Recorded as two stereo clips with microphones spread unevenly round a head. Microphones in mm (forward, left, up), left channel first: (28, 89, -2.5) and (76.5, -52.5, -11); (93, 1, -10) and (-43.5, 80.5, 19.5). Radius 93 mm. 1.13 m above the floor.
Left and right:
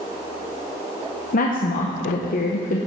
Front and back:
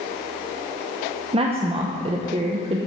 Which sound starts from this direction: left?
A woman speaking, at 1.3 s.